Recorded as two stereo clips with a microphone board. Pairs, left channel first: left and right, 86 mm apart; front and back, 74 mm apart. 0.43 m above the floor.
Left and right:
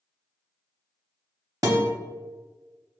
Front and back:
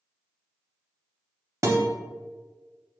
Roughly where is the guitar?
Behind right.